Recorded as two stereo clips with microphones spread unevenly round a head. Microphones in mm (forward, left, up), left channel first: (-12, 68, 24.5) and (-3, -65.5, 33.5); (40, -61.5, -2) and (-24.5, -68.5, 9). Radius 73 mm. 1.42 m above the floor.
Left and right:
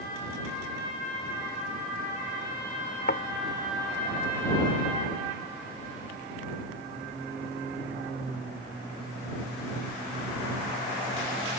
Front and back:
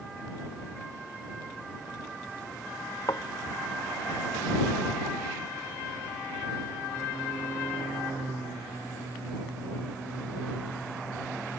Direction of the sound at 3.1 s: 65° left.